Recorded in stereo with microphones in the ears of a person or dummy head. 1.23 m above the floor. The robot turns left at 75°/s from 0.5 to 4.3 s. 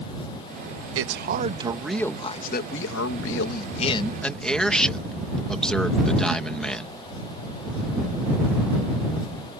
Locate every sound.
0.9 s a man speaking: 105° right; by 7.0 s 5° left